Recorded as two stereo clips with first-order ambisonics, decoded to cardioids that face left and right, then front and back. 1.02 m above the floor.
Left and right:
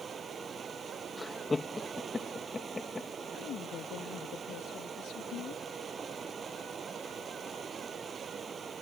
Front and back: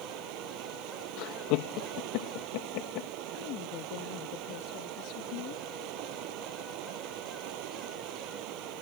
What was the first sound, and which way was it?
Running water, 160° right.